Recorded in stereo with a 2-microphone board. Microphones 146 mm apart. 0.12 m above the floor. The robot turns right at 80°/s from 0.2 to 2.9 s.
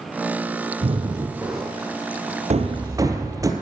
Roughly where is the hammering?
Ahead right.